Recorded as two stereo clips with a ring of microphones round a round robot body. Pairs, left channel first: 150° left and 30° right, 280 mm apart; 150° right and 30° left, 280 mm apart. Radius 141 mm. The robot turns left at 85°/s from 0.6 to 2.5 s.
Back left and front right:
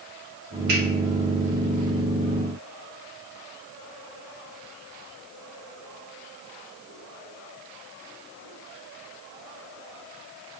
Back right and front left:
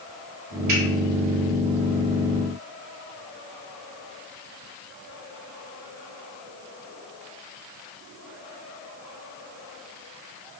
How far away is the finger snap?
About 1.2 m.